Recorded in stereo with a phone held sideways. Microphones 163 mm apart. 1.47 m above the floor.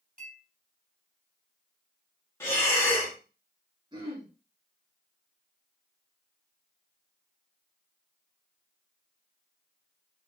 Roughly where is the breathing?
Centre.